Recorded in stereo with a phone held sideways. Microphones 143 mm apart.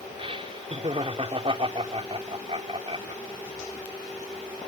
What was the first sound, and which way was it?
Laughter, 40° right (ahead or behind).